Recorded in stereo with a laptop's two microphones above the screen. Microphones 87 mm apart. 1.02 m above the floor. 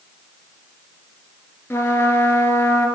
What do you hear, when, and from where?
1.7 s a trumpet: 30° left (ahead or behind), 2.5 m